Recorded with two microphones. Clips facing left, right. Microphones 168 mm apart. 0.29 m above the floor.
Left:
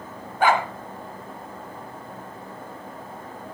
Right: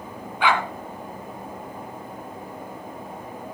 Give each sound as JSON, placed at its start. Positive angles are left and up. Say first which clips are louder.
{"t": 0.4, "sound": "a dog barking", "louder": "left 2 dB", "side_deg": 45, "distance_m": 1.3}